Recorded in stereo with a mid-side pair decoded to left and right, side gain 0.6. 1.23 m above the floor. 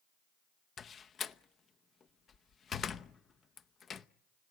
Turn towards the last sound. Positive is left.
turn(degrees=40)